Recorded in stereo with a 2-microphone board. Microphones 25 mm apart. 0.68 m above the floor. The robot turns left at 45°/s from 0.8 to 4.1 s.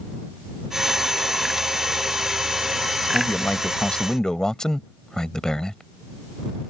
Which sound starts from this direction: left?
A man speaking, at 3.1 s.